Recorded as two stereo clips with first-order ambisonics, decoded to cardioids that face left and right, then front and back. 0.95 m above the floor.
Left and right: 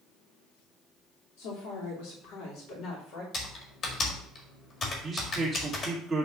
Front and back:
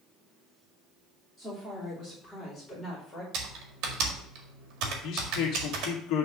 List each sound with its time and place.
1.4 s a woman speaking: 85° left, 2.5 m; by 3.2 s 60° left, 2.5 m
3.3 s typing on a keyboard: 145° left, 1.8 m
5.0 s a man speaking: 10° right, 1.9 m